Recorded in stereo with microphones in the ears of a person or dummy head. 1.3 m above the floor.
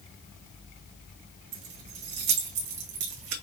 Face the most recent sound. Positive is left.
turn(degrees=-65)  # may be behind; listen again after turning